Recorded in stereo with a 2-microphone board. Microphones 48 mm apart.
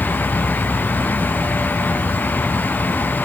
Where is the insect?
45° left (ahead or behind), 1.2 m.